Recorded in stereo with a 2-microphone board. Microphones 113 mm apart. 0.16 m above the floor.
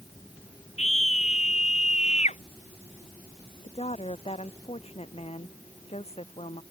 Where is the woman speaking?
65° left (ahead or behind).